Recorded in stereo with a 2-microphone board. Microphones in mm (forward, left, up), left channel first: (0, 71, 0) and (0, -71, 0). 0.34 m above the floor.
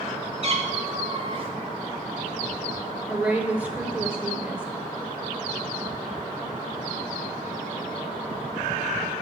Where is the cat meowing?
45° right (ahead or behind), 1.1 m.